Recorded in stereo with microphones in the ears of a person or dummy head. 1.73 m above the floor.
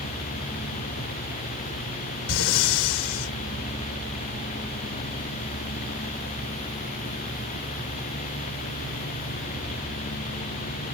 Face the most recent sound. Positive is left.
turn(degrees=65)  # may be behind; listen again after turning